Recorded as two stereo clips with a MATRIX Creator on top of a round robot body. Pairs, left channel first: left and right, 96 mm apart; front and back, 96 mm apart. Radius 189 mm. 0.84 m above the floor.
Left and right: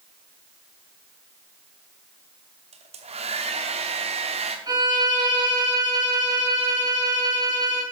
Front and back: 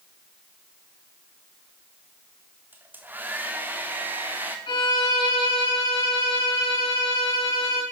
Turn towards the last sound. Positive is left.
turn(degrees=-40)